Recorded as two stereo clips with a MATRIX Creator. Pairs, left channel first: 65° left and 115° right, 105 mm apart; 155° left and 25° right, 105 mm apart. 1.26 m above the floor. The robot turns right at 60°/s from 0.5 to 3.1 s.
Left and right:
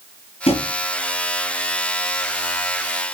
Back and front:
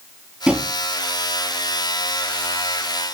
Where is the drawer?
60° left, 5 m; by 0.7 s 75° left, 5 m.